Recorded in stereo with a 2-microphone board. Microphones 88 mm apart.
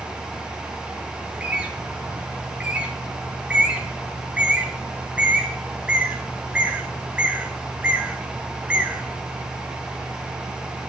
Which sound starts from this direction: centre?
A bird, at 1.2 s.